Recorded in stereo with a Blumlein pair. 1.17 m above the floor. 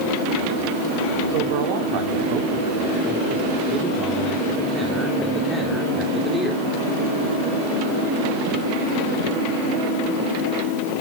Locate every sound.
1.3 s a man speaking: 50° right, 3 m; by 6.6 s 10° left, 3 m